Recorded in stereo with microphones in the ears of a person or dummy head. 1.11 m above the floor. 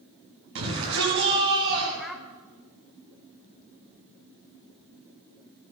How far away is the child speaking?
About 2.5 m.